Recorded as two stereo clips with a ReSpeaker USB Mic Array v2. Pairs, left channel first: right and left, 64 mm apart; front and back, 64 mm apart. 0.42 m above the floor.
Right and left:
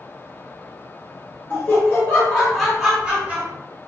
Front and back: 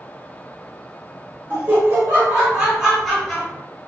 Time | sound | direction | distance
1.5 | laughter | 140° right | 1.4 m